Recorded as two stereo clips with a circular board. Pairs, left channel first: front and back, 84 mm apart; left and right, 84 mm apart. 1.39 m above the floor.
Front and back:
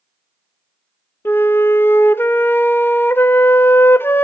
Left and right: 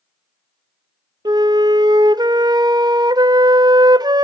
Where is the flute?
60° right, 0.6 m.